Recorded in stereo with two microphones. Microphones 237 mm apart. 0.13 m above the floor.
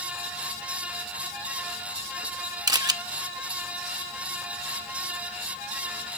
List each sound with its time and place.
2.7 s a camera shutter: 15° right (ahead or behind), 0.7 m